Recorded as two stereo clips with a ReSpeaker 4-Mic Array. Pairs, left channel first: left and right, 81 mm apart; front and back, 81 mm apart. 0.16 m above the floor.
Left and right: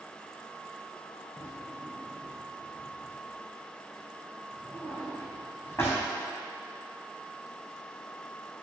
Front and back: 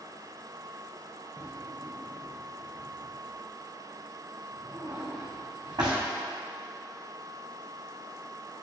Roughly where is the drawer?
Behind left.